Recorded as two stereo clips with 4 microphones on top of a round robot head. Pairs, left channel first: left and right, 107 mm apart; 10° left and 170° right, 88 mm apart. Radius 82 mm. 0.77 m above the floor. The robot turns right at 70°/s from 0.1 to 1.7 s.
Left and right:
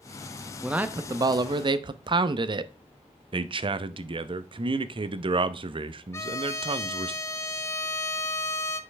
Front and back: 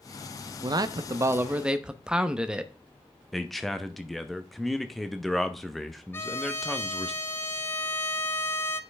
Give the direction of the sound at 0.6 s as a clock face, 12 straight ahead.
6 o'clock.